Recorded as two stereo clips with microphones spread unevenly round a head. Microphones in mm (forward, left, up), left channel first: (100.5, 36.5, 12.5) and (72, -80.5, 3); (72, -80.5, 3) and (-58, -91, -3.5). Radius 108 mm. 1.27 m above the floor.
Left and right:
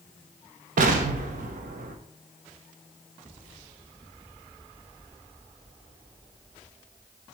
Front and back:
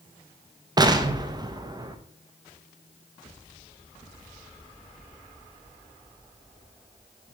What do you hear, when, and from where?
0.8 s an explosion: 115° right, 0.7 m